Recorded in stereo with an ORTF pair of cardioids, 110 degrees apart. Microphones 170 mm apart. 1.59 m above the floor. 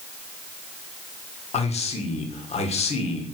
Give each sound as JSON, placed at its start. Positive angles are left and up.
{"t": 1.5, "sound": "a man speaking", "azimuth_deg": 40, "distance_m": 1.6}